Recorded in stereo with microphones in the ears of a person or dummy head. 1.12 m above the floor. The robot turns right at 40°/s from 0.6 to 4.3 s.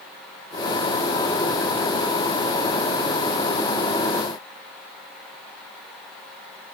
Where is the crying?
I don't hear crying.